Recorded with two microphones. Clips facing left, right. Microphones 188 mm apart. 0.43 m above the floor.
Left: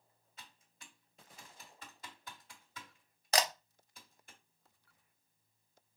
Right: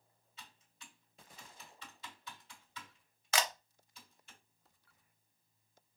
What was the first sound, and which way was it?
Typing on a keyboard, 50° left (ahead or behind).